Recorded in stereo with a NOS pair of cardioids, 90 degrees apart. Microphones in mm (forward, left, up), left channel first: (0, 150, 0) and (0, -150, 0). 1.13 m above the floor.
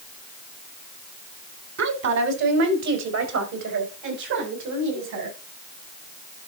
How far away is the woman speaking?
About 3.5 m.